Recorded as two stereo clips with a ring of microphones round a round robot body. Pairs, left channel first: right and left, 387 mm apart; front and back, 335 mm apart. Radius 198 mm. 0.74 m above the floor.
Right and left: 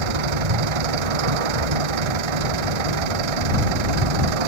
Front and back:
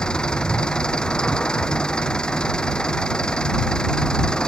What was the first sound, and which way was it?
An engine running, 85° left.